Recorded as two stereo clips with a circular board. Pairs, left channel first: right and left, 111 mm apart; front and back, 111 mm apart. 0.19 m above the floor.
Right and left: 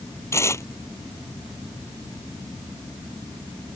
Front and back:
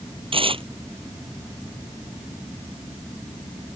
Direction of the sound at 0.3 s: 150° right.